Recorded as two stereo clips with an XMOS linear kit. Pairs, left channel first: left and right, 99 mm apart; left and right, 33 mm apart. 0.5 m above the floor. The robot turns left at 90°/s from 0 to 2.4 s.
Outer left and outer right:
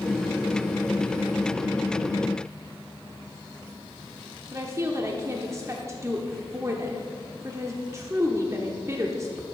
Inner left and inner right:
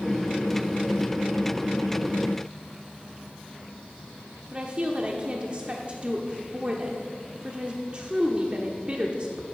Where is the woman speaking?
30° right (ahead or behind), 1.0 m.